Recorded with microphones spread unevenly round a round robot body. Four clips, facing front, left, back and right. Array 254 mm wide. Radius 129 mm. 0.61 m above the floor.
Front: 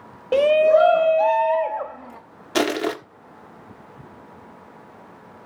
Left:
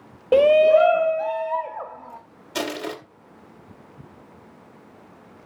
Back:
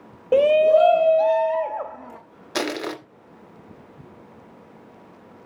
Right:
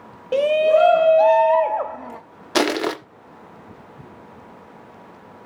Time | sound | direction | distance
0.3 | a shout | 85° left | 0.6 m
2.5 | crushing | 70° right | 2.0 m